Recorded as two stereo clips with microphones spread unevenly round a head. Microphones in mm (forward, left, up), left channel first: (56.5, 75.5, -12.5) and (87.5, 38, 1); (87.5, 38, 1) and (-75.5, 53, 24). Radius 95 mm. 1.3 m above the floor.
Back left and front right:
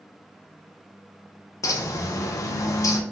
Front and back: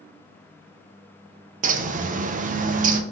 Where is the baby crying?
No baby crying in this recording.